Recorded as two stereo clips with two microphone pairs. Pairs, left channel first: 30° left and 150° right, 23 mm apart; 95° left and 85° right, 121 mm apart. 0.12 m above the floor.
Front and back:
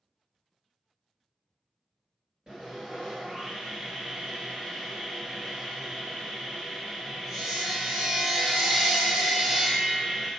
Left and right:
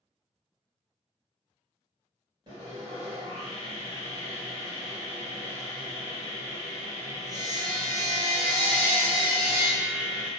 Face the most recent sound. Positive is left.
turn(degrees=-125)